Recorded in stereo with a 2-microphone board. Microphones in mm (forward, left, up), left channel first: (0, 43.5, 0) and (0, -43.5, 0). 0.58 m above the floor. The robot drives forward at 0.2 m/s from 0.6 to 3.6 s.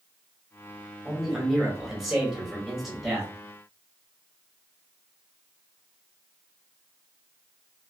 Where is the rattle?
I don't hear a rattle.